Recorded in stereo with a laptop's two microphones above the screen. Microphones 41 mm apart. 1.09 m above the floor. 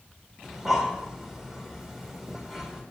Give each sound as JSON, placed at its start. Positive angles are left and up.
{"t": 0.4, "sound": "breathing", "side_deg": -10, "distance_m": 1.9}